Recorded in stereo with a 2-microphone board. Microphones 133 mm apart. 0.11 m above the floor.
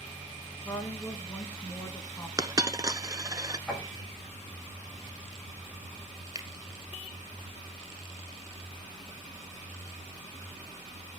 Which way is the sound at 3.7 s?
Centre (ahead or behind).